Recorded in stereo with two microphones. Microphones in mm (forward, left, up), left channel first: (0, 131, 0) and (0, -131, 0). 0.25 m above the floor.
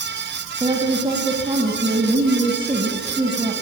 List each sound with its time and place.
0.6 s a woman speaking: 20° right (ahead or behind), 1.9 m